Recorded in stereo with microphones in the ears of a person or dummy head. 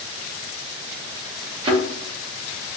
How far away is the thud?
About 1.1 m.